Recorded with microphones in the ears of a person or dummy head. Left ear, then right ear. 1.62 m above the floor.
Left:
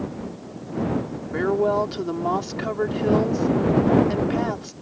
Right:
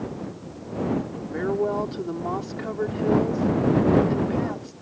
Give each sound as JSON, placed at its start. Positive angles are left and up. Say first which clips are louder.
{"t": 1.3, "sound": "a woman speaking", "louder": "left 4 dB", "side_deg": 20}